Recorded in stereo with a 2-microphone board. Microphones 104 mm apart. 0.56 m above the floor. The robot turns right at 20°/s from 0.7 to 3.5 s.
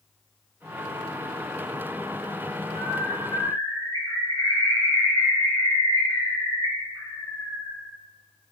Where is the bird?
50° left (ahead or behind), 6 m; by 7.7 s 35° left (ahead or behind), 6 m.